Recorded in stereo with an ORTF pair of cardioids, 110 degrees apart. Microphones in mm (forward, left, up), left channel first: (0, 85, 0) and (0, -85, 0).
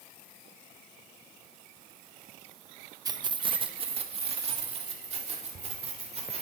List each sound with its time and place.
3.0 s keys jangling: 20° right, 0.7 m; by 6.4 s 40° right, 4 m